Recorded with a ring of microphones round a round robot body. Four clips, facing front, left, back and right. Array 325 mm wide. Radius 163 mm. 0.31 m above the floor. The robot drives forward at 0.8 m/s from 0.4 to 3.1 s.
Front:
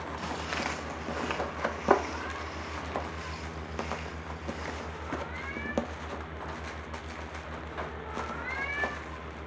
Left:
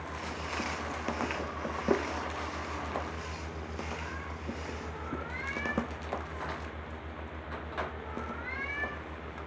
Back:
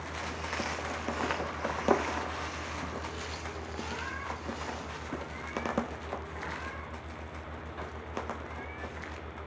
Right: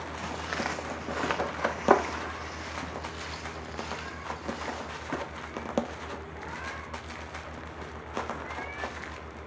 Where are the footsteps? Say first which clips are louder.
Right 4 dB, front 1 dB; 40° right, 2 m; by 5.1 s 135° right, 7 m.